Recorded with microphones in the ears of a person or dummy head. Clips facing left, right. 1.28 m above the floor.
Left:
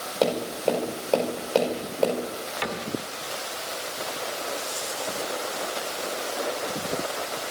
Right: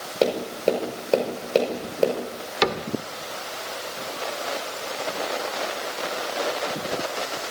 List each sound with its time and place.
0.2 s tapping: 30° right (ahead or behind), 5 m
2.6 s a cupboard door: 70° right (ahead or behind), 1.8 m